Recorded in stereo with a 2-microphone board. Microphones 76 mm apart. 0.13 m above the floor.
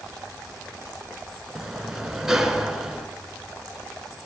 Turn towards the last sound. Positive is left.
turn(degrees=-5)  # may be behind; listen again after turning